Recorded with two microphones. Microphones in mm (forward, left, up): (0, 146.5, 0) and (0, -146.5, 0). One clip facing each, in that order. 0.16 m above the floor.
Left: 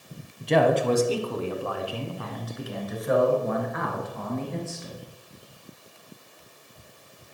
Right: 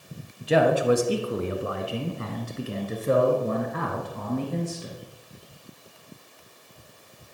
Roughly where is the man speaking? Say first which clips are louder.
Even; centre.